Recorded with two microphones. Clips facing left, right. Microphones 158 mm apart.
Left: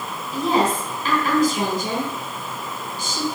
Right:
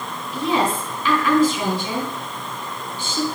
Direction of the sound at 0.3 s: 45° left (ahead or behind).